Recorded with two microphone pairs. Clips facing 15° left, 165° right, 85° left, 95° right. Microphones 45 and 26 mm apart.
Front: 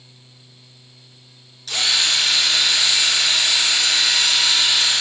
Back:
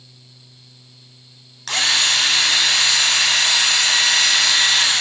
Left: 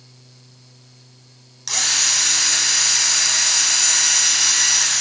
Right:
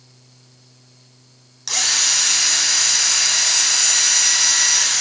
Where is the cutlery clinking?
No cutlery clinking in this recording.